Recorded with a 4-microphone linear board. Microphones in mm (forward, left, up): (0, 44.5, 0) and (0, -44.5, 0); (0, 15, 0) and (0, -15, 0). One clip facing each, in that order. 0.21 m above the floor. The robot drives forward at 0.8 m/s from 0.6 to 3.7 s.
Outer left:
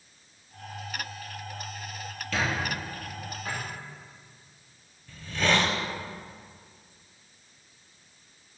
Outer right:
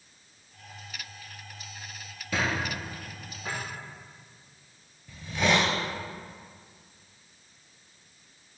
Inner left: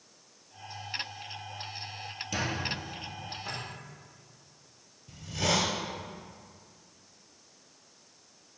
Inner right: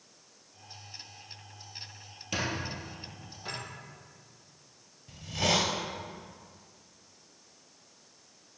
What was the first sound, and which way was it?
A squeak, 15° right (ahead or behind).